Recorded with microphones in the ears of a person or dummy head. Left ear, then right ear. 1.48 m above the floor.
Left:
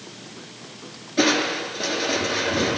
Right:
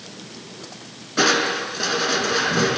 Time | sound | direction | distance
1.2 | crushing | 55° right (ahead or behind) | 4.5 m